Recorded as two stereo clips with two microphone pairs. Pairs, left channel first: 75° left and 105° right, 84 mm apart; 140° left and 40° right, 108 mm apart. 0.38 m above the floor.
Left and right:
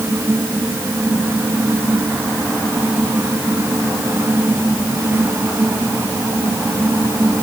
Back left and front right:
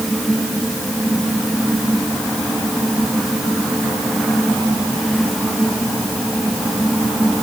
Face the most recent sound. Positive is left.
No sound to turn to.